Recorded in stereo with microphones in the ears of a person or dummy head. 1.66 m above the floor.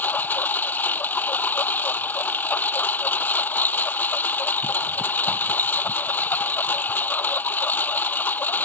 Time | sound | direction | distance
0.0 | a lawn mower | 10° left (ahead or behind) | ?